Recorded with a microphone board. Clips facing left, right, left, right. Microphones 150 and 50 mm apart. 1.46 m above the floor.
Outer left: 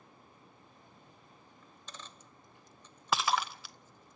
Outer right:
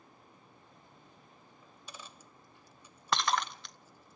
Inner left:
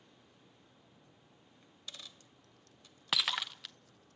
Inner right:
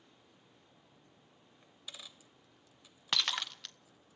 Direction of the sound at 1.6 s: 10° right (ahead or behind).